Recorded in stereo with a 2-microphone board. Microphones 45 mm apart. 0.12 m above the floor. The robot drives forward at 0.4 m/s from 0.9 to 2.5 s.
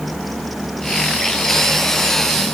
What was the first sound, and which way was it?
Only background noise.